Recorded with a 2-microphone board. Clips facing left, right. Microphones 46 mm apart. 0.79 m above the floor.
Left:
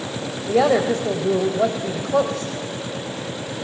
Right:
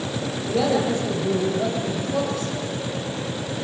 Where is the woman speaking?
80° left, 3 m.